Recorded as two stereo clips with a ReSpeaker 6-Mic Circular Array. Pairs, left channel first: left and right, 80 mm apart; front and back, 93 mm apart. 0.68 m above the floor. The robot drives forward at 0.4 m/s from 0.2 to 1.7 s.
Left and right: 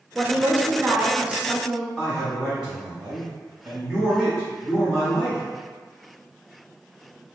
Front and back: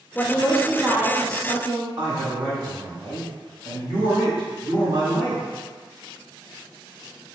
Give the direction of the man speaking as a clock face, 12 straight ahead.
6 o'clock.